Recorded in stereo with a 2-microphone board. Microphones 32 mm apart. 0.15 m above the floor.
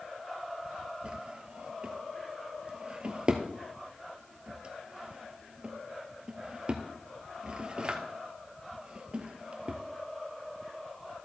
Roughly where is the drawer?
Right.